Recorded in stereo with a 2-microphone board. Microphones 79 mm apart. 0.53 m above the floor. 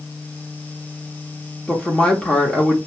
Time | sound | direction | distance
1.7 | a woman speaking | 15° left (ahead or behind) | 1.0 m